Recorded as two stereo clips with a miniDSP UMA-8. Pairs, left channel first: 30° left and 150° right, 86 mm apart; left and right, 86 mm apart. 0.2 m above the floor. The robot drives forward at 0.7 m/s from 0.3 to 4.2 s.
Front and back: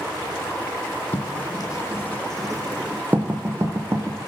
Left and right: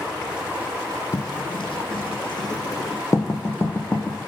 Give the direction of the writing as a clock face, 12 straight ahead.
10 o'clock.